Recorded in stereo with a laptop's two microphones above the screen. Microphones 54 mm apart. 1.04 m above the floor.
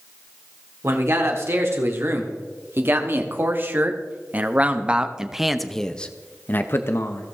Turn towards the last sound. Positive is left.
turn(degrees=60)  # may be behind; listen again after turning